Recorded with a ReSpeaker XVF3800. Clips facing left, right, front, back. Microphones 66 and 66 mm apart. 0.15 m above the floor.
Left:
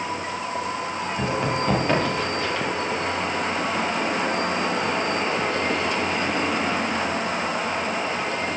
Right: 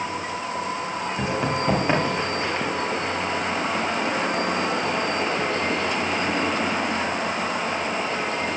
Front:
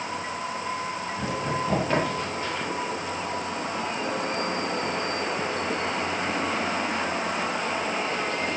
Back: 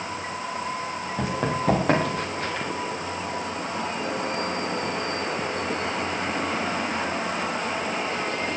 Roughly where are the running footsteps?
Behind.